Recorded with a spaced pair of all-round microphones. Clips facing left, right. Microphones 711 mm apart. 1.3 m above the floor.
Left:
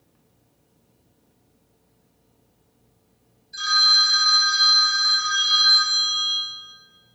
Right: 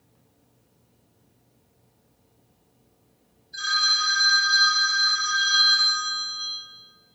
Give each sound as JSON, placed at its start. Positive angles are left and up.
{"t": 3.5, "sound": "a phone ringing", "side_deg": 40, "distance_m": 0.6}